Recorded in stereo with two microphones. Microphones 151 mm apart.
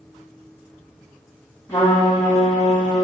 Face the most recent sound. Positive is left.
turn(degrees=20)  # may be behind; listen again after turning